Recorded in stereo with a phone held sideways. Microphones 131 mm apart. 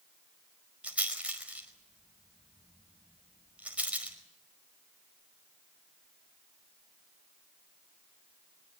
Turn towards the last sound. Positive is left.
turn(degrees=-10)  # may be behind; listen again after turning